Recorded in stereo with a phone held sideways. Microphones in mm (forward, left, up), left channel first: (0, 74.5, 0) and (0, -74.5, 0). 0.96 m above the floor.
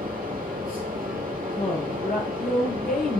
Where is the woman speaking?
80° left, 3 m.